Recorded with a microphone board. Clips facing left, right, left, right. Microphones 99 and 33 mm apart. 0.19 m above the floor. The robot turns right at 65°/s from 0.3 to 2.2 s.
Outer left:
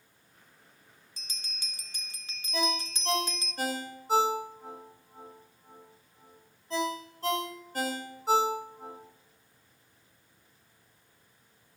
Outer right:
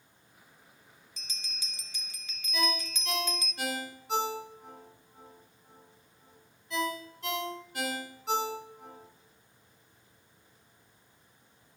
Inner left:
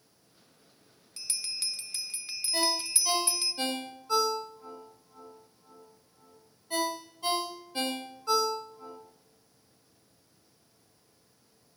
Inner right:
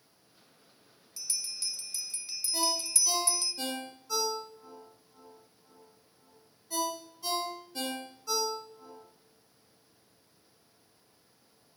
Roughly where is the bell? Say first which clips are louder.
Even, inner left 2 dB; ahead left.